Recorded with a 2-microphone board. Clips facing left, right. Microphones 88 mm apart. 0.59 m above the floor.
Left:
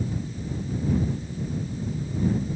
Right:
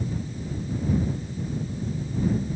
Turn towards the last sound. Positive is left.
No sound to turn to.